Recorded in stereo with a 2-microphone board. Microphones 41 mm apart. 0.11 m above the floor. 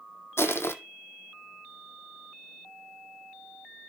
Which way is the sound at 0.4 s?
80° left.